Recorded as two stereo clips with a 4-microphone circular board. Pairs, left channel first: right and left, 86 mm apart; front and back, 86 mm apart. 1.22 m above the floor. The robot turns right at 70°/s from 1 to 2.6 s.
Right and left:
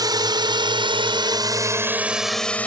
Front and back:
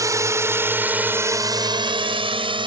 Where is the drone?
130° left; by 2.7 s 165° right.